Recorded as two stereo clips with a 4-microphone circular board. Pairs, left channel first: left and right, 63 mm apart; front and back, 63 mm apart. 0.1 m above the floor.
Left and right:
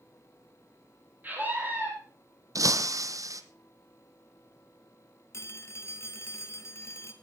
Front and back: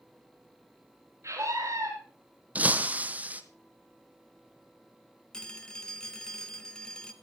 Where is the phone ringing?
75° left, 1.7 m.